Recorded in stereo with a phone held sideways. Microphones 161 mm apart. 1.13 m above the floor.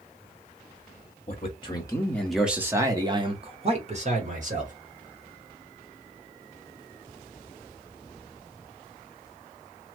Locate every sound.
1.3 s a man speaking: 40° left (ahead or behind), 1.0 m; by 4.7 s 55° right (ahead or behind), 1.8 m